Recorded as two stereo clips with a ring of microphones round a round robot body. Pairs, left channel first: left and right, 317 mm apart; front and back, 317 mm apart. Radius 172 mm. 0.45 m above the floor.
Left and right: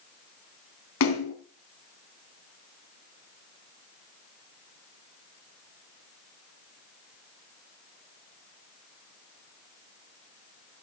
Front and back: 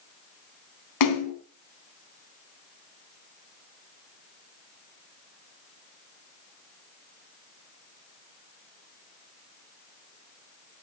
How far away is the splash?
About 2.5 m.